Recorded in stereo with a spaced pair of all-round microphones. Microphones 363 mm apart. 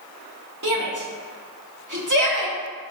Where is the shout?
55° right (ahead or behind), 2.5 m.